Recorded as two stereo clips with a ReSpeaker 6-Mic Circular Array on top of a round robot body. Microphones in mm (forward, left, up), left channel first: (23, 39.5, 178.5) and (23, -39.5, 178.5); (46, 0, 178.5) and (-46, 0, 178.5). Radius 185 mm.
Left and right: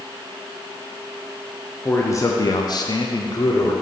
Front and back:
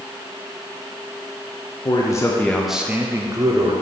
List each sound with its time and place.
1.9 s a man speaking: 30° left, 0.9 m; by 3.7 s 135° left, 1.2 m